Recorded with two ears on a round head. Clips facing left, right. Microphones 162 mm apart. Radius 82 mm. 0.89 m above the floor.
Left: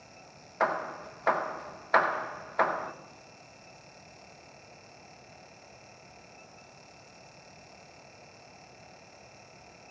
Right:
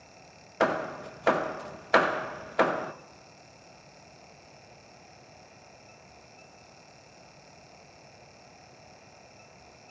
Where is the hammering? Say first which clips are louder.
Right 3 dB; 35° right (ahead or behind), 0.7 m.